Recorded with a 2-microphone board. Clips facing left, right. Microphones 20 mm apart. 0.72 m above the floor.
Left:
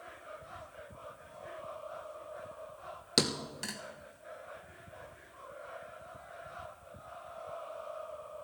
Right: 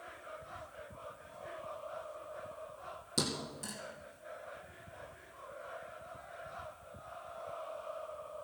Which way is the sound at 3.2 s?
60° left (ahead or behind).